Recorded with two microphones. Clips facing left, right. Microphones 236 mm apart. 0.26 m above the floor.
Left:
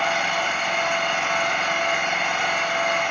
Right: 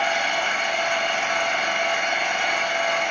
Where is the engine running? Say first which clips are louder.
Even; 75° left (ahead or behind), 4 m.